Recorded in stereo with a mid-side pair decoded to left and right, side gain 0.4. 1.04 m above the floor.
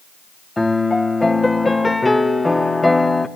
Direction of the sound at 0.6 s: 15° left.